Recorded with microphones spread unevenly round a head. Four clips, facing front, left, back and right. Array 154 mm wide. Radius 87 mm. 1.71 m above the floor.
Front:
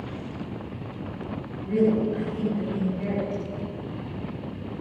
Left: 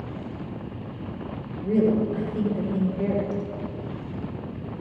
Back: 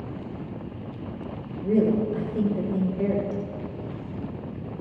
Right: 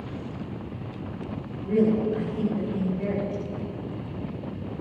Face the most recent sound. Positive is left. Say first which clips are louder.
# left 1 dB, even
turn(degrees=155)